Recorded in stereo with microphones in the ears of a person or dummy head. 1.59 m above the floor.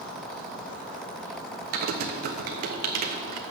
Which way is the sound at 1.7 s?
45° right (ahead or behind).